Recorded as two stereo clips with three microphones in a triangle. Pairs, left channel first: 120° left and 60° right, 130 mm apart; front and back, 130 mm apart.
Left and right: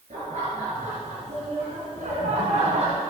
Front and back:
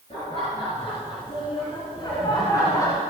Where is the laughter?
40° right, 5.5 m; by 3.0 s 65° right, 2.5 m.